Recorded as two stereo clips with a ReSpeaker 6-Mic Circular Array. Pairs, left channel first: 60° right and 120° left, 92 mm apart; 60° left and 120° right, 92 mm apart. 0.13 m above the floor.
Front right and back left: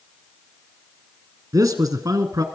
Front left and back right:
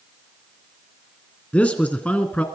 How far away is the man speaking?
About 1.5 m.